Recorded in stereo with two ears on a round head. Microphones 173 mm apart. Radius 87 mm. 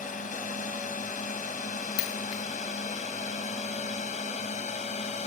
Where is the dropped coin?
80° left.